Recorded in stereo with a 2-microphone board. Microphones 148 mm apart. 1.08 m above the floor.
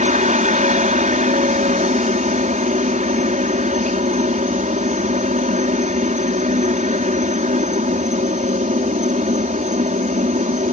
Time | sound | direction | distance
0.0 | a helicopter | 60° right (ahead or behind) | ?